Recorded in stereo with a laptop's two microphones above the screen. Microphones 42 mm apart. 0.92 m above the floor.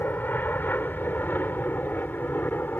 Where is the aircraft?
50° left (ahead or behind).